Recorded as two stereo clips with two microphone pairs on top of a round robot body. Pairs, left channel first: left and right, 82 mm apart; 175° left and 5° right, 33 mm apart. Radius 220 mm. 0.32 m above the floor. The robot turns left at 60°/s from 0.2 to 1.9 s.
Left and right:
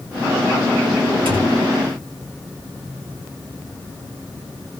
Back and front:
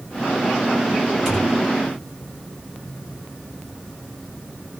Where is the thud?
80° right, 1.7 m; by 1.6 s 105° right, 1.7 m.